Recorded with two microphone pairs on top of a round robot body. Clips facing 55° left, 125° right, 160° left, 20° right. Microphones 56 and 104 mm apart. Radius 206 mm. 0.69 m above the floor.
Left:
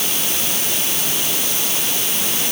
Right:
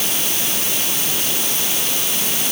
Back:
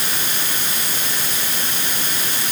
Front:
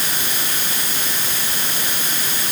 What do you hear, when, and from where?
Only background noise.